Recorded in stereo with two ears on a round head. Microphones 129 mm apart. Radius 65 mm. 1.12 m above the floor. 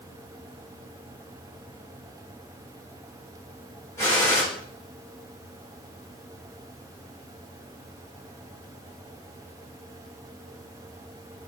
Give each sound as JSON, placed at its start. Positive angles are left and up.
{"t": 4.0, "sound": "a gunshot", "side_deg": 20, "distance_m": 3.0}